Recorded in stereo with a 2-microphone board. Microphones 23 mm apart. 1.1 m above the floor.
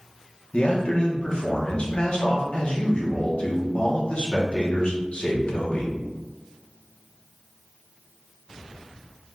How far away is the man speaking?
About 1.2 m.